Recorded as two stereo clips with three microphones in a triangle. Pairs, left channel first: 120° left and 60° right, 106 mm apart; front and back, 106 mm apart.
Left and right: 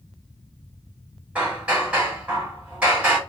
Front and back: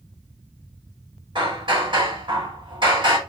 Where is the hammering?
135° right, 2.5 m.